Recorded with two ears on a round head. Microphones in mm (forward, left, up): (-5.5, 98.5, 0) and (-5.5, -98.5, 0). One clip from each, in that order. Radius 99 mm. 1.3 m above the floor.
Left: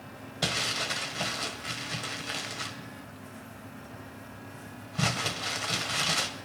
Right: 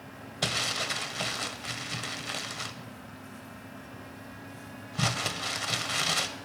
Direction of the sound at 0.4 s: 15° right (ahead or behind).